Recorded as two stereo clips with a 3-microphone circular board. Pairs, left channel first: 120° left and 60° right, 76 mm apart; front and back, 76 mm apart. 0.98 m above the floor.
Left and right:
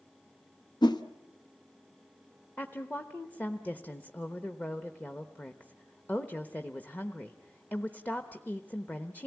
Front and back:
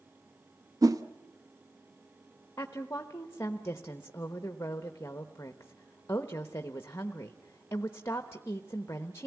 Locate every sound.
0.8 s a whoosh: 140° left, 0.9 m
2.6 s a woman speaking: 50° left, 0.9 m